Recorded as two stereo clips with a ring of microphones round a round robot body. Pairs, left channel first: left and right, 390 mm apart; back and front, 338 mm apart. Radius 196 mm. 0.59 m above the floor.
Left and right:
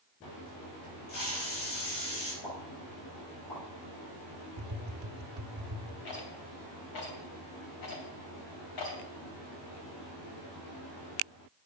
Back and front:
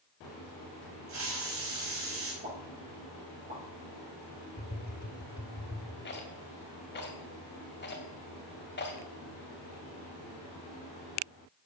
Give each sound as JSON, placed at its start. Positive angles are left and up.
{"t": 1.1, "sound": "a hiss", "azimuth_deg": 45, "distance_m": 4.5}
{"t": 2.4, "sound": "a pop", "azimuth_deg": 60, "distance_m": 7.5}
{"t": 4.6, "sound": "tapping", "azimuth_deg": -125, "distance_m": 1.5}
{"t": 6.0, "sound": "a rattle", "azimuth_deg": 125, "distance_m": 3.0}